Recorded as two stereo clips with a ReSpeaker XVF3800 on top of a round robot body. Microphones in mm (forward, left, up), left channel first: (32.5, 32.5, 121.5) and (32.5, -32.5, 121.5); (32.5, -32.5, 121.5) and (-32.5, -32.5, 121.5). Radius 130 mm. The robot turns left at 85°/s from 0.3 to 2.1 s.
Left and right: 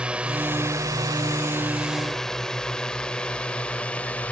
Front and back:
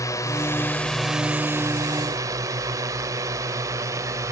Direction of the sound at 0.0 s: 20° right.